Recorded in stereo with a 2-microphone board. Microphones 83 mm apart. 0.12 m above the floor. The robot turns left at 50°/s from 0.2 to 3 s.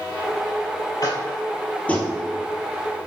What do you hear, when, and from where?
1.0 s tapping: 55° left (ahead or behind), 1.7 m; by 2.1 s 5° left (ahead or behind), 1.7 m